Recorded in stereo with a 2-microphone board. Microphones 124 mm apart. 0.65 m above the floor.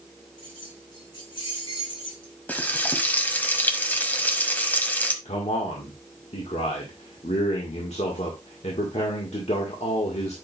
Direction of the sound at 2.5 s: 15° left (ahead or behind).